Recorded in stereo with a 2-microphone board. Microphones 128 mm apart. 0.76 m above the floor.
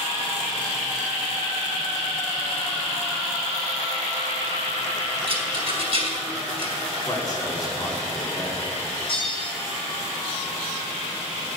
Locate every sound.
5.3 s a rattle: 45° right (ahead or behind), 3 m
7.1 s a man speaking: 30° left (ahead or behind), 2.5 m
9.1 s a bell: 45° left (ahead or behind), 3 m